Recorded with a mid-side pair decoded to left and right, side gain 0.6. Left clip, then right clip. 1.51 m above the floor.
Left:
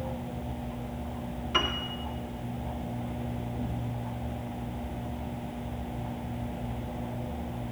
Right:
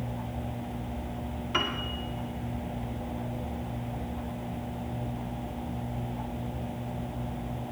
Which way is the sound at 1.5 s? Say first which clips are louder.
Left 1 dB; straight ahead.